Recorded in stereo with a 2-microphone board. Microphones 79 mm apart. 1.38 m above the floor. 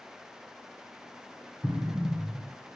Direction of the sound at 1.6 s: 35° right (ahead or behind).